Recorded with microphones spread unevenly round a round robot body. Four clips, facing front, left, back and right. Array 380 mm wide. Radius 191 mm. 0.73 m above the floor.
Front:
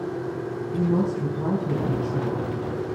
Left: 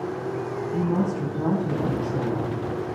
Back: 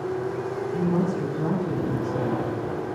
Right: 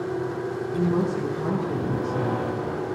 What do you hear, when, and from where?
0.7 s a woman speaking: 50° left, 5 m